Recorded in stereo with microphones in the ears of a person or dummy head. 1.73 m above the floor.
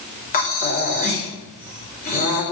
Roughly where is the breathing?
Left.